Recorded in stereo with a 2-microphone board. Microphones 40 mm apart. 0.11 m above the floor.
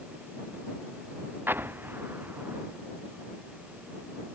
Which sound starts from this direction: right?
An explosion, at 1.5 s.